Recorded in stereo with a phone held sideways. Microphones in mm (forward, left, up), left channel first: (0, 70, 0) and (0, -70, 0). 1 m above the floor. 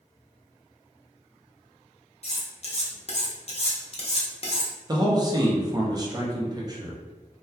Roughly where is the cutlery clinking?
Left.